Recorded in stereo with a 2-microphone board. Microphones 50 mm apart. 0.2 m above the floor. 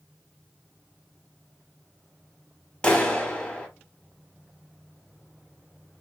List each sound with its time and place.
2.8 s a clap: 20° left (ahead or behind), 0.7 m